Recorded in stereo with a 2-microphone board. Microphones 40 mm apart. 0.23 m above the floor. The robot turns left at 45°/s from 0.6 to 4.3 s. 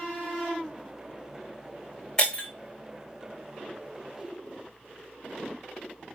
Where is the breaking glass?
20° left (ahead or behind), 1.9 m; by 2.5 s 35° left (ahead or behind), 1.9 m.